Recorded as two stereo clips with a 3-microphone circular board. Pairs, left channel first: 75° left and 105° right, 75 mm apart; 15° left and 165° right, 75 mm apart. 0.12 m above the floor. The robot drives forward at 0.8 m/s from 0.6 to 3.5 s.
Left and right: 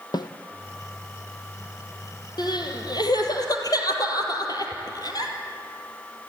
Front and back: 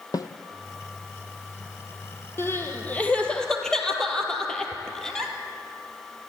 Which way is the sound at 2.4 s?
70° left.